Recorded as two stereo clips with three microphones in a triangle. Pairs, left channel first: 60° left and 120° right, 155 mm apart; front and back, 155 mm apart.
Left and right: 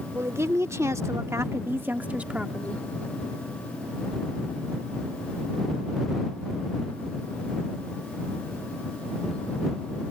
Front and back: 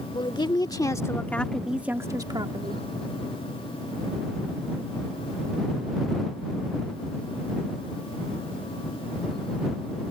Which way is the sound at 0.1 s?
50° right.